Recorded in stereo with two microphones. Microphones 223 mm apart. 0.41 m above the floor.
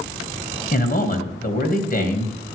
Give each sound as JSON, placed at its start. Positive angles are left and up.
{"t": 0.7, "sound": "a man speaking", "side_deg": 40, "distance_m": 2.5}